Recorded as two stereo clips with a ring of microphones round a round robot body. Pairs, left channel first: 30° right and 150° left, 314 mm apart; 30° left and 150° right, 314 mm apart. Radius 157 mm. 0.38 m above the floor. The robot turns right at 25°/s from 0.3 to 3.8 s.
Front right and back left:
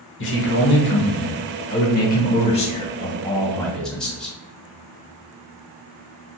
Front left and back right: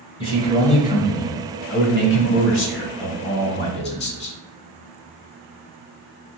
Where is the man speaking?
30° right, 1.1 m; by 4.4 s 55° left, 1.1 m.